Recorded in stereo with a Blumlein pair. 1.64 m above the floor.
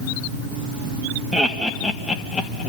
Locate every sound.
1.3 s laughter: 5° left, 3 m; by 2.7 s 30° left, 1.8 m